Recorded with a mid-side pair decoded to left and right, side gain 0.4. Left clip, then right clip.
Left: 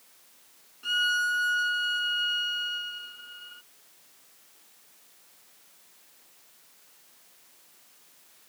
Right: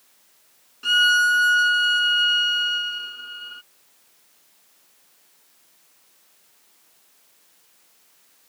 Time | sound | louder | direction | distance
0.8 | a violin | right 9 dB | 65° right | ?